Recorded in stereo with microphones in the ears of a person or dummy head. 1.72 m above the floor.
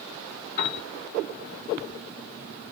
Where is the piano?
45° left (ahead or behind), 1.1 m.